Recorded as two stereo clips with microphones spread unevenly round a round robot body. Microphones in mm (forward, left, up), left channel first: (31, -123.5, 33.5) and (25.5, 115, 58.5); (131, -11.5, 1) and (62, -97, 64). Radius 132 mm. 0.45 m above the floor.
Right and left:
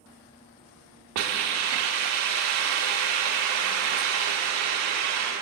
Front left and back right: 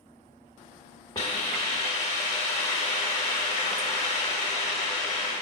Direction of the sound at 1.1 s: 105° left.